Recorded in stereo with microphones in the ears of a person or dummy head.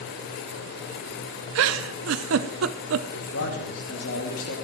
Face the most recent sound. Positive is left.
turn(degrees=75)  # may be behind; listen again after turning